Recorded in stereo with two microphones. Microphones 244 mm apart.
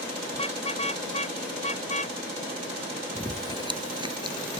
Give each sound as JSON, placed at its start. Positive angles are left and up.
{"t": 0.3, "sound": "a car horn", "side_deg": 25}
{"t": 3.1, "sound": "chewing", "side_deg": -20}